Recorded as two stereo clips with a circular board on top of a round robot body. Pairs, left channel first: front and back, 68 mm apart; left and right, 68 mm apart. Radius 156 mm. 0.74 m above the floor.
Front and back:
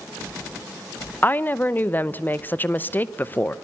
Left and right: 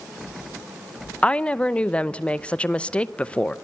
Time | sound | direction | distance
1.2 | a woman speaking | 30° left | 1.0 m